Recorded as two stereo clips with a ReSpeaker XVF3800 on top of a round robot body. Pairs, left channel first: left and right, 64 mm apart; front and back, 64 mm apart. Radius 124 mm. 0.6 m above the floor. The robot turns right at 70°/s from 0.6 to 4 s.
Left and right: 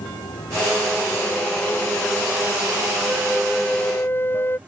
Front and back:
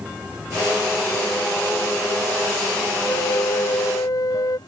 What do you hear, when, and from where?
0.0 s running water: 105° left; by 4.7 s 20° right
3.1 s a flute: 30° right; by 4.6 s 35° left